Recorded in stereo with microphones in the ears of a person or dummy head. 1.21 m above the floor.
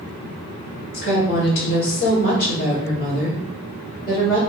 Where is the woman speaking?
55° left (ahead or behind), 1.6 m; by 4.4 s 15° left (ahead or behind), 0.8 m.